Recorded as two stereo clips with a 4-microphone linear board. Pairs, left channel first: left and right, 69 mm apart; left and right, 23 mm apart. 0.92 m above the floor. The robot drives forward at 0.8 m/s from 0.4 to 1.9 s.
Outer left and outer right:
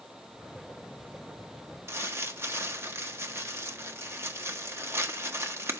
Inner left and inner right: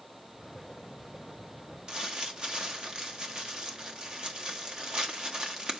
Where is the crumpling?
40° right (ahead or behind), 1.2 m.